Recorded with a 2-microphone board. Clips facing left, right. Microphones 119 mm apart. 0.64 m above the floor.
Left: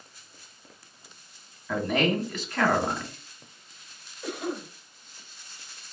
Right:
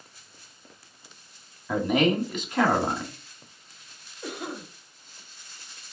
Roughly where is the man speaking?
Centre.